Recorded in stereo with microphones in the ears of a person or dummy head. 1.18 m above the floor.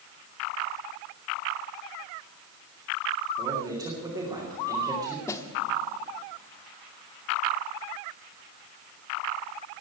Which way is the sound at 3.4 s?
10° right (ahead or behind).